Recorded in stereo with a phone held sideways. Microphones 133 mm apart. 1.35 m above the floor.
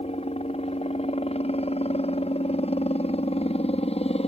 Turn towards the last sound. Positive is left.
turn(degrees=50)  # may be behind; listen again after turning